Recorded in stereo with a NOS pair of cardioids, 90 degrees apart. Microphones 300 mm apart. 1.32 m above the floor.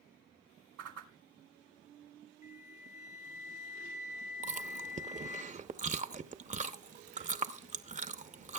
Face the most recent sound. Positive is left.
turn(degrees=-25)